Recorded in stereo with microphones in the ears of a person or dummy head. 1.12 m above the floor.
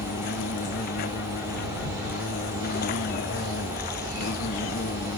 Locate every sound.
0.0 s an insect: 60° left (ahead or behind)